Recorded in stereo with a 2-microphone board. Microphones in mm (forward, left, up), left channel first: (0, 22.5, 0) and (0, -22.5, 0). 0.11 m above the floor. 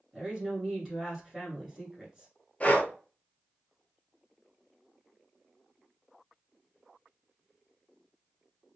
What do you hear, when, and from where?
0.1 s a woman speaking: 15° right (ahead or behind), 1.7 m
2.6 s breathing: 35° left (ahead or behind), 0.8 m